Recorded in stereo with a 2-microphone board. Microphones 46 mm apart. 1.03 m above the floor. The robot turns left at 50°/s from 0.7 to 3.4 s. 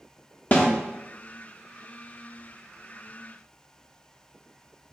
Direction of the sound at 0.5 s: 40° left (ahead or behind).